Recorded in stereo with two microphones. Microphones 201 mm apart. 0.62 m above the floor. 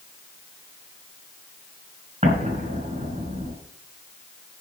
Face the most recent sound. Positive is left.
turn(degrees=-35)  # may be behind; listen again after turning